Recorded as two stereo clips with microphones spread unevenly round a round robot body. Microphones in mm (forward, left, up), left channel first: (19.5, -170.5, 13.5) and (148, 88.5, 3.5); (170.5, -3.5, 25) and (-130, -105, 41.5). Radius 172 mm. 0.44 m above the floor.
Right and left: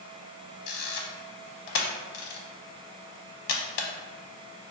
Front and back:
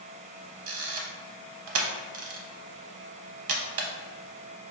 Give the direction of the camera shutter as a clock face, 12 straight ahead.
4 o'clock.